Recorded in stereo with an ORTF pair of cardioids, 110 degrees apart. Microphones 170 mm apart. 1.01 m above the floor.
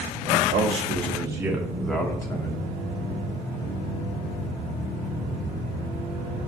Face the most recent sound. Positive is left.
turn(degrees=25)